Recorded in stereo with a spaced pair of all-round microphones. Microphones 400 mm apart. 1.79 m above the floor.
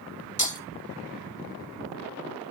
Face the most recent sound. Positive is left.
turn(degrees=45)  # may be behind; listen again after turning